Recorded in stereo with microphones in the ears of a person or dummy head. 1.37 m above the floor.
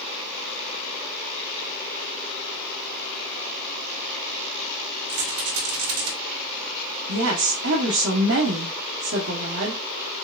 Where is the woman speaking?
75° right (ahead or behind), 0.9 m.